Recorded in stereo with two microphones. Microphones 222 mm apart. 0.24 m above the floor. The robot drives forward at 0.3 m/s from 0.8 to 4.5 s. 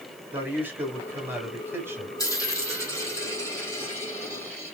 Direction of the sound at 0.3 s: 10° right (ahead or behind).